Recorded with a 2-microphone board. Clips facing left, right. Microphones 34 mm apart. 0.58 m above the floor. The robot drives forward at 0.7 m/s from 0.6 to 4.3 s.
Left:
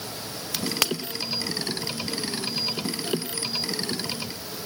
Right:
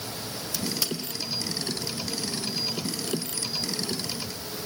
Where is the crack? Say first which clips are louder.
Left 5 dB; 65° left (ahead or behind), 0.7 m; by 0.9 s 70° left (ahead or behind), 0.7 m.